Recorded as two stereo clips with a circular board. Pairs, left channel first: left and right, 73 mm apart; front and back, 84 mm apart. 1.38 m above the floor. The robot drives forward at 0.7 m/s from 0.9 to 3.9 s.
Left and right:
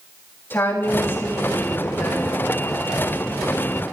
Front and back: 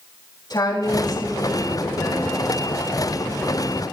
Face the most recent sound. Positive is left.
turn(degrees=70)